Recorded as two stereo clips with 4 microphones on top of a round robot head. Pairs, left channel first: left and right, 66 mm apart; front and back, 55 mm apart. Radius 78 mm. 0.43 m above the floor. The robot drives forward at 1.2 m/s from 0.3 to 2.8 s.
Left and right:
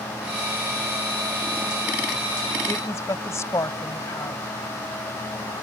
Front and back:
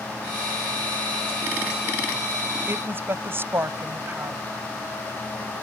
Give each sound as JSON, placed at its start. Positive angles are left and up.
{"t": 2.7, "sound": "a woman speaking", "azimuth_deg": 135}